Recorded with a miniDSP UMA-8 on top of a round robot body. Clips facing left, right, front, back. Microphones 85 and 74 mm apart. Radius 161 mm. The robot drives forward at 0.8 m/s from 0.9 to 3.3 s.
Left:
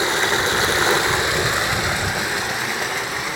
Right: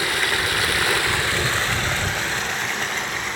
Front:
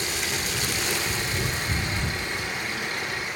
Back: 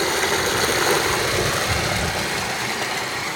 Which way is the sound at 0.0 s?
155° left.